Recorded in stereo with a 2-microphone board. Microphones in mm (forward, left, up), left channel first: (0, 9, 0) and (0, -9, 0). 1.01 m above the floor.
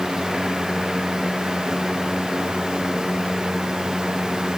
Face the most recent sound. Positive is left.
No sound to turn to.